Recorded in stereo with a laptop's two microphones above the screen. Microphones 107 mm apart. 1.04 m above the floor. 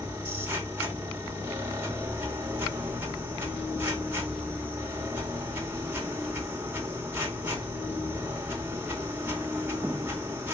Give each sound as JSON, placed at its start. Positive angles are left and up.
{"t": 0.0, "sound": "a machine running", "side_deg": -15, "distance_m": 2.5}